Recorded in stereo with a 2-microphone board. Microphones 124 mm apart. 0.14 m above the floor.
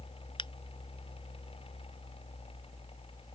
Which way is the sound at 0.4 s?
45° left (ahead or behind).